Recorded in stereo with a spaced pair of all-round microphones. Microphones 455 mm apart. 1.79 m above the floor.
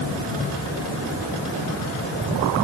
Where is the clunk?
I don't hear a clunk.